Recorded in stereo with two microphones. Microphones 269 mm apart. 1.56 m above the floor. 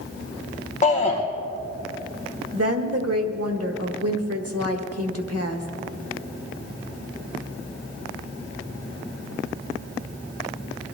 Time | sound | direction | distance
0.8 | a shout | 30° left (ahead or behind) | 1.2 m
2.5 | a woman speaking | 65° right (ahead or behind) | 1.6 m